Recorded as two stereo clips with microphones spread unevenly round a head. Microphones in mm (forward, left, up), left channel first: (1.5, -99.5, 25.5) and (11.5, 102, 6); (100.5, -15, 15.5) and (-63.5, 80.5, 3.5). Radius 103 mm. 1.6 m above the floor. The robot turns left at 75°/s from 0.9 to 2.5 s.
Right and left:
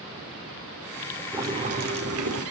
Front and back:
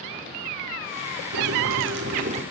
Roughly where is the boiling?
Behind.